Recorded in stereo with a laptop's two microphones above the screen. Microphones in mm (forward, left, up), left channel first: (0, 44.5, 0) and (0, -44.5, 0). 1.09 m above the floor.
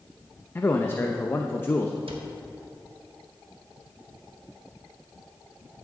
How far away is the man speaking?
About 0.7 m.